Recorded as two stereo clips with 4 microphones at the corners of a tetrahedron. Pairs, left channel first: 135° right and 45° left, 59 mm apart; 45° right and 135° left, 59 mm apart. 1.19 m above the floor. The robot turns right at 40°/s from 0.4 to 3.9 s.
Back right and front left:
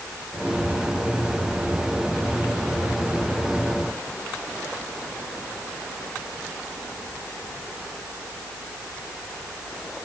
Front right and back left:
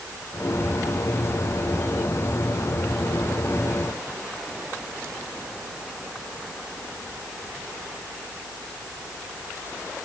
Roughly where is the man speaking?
No man speaking in this recording.